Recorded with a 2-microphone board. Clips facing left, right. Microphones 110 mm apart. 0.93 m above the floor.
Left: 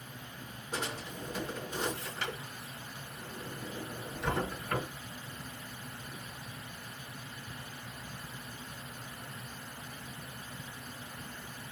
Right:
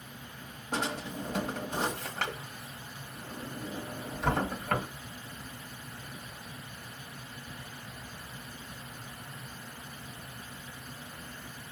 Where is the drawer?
75° right (ahead or behind), 1.8 m.